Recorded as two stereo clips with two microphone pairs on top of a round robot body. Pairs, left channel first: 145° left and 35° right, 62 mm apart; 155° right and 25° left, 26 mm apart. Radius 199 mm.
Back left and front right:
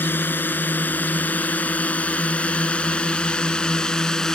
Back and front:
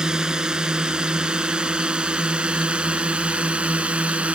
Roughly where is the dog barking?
No dog barking in this recording.